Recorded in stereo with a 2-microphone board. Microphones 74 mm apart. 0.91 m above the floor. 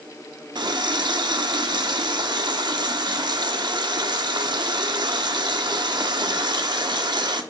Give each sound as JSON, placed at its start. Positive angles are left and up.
{"t": 0.6, "sound": "a running tap", "side_deg": -80, "distance_m": 1.1}